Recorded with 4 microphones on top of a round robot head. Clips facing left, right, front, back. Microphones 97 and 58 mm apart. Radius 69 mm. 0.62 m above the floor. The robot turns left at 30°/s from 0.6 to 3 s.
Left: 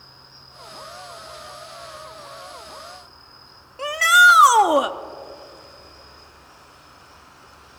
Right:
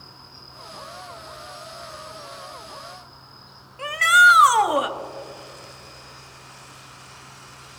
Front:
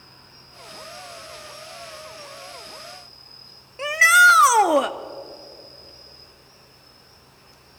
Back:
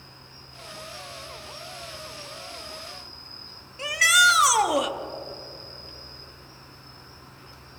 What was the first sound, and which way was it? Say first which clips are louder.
An insect: right 3 dB, back 1 dB; 90° right.